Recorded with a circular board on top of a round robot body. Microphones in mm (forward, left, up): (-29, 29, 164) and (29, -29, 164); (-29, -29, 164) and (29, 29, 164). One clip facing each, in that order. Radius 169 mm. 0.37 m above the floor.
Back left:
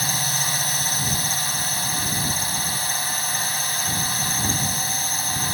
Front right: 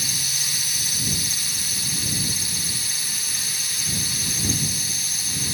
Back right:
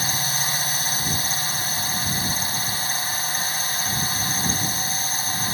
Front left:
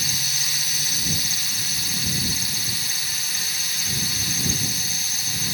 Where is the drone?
175° left.